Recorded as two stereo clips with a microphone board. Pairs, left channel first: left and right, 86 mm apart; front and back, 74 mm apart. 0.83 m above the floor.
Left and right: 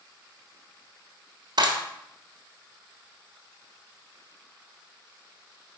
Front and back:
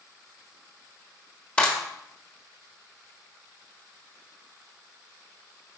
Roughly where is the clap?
Right.